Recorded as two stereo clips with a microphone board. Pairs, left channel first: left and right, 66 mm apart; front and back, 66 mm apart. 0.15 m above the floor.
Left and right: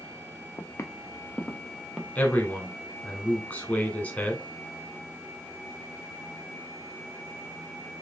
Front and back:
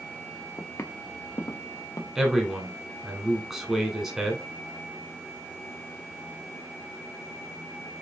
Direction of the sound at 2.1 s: 105° left.